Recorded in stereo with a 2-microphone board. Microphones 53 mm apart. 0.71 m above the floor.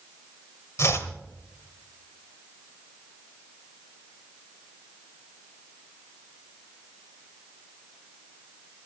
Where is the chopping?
60° left (ahead or behind), 1.7 m.